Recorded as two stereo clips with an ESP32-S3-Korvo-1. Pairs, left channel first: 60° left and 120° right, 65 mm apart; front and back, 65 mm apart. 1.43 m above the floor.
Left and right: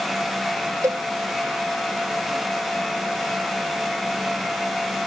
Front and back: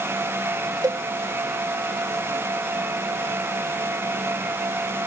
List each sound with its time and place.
0.8 s a cowbell: 155° right